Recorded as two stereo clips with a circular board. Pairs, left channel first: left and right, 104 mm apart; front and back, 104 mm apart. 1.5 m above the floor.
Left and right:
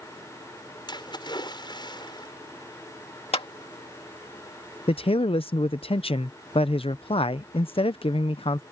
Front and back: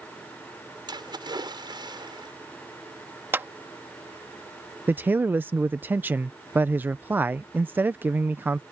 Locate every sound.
0.9 s a splash: 135° left
3.3 s a clap: 110° left
4.9 s a man speaking: 110° left